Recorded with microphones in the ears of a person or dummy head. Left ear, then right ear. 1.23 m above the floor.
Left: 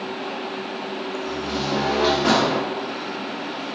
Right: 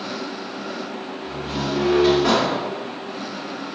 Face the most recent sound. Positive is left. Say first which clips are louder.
# even
turn(degrees=25)  # may be behind; listen again after turning